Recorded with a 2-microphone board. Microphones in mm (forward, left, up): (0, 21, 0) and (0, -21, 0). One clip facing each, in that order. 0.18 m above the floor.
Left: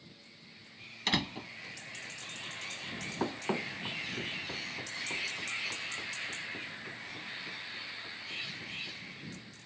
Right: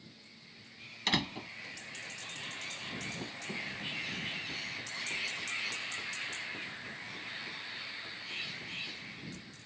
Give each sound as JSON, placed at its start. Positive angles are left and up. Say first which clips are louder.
{"t": 1.1, "sound": "a door slam", "louder": "even", "side_deg": 0}
{"t": 3.2, "sound": "running footsteps", "louder": "left 6 dB", "side_deg": 70}